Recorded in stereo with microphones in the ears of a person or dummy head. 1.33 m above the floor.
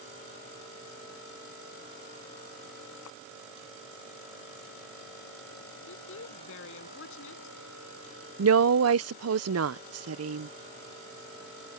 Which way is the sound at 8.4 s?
70° right (ahead or behind).